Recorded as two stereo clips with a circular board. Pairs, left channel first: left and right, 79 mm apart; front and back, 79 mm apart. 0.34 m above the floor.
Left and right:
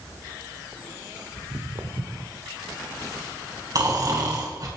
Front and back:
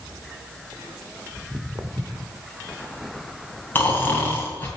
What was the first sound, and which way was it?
Footsteps, 115° right.